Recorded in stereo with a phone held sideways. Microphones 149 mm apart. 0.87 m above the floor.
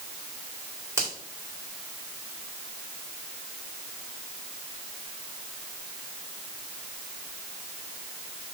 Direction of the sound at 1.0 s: 15° right (ahead or behind).